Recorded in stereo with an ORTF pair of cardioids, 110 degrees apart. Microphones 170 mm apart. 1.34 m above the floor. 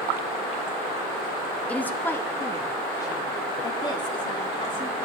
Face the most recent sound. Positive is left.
turn(degrees=30)